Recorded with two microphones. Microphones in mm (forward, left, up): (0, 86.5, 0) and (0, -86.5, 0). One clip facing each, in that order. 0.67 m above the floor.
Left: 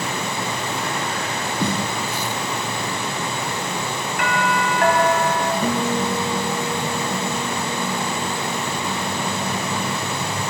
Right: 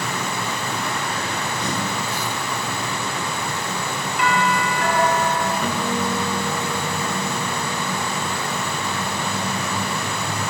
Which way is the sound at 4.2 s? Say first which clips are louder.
Right 1 dB; 55° left (ahead or behind).